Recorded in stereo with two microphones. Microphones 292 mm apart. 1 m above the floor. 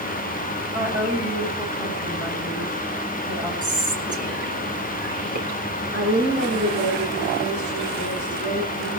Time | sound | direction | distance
0.7 | a woman speaking | 10° right (ahead or behind) | 6 m
3.6 | whispering | 75° right (ahead or behind) | 3.5 m
5.9 | a woman speaking | 35° right (ahead or behind) | 8.5 m